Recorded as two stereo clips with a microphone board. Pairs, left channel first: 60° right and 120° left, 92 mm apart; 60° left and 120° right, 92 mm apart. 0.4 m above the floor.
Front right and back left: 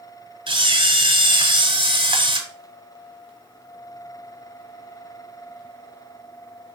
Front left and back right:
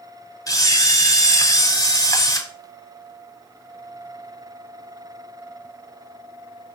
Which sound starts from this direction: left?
A camera shutter, at 0.5 s.